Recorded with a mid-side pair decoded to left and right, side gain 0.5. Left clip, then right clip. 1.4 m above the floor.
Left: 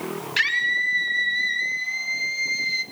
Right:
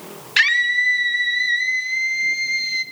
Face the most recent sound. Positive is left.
turn(degrees=-20)